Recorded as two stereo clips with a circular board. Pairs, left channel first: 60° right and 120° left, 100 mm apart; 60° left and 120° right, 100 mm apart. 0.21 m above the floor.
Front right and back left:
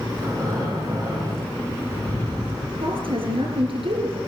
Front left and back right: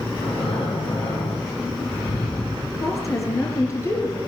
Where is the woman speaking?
115° left, 4.5 m.